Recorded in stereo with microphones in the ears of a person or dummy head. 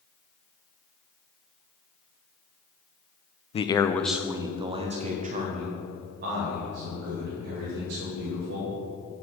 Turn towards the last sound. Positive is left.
turn(degrees=-60)  # may be behind; listen again after turning